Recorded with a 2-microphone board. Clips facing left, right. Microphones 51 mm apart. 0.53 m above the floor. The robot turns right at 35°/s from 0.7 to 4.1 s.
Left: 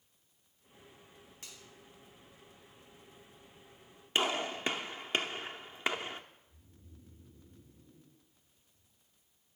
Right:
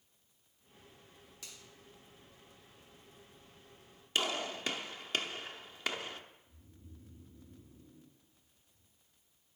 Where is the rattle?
No rattle in this recording.